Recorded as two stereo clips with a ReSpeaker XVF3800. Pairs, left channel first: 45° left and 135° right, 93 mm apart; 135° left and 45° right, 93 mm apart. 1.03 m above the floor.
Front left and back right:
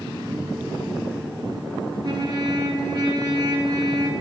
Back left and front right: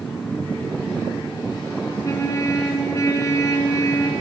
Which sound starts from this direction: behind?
A trumpet, at 2.0 s.